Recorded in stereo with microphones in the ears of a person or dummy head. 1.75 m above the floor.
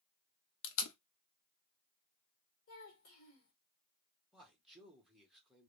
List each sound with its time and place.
0.6 s tape being pulled: 75° left (ahead or behind), 0.8 m
2.7 s a child speaking: 50° left (ahead or behind), 1.3 m
4.3 s a man speaking: centre (ahead or behind), 1.5 m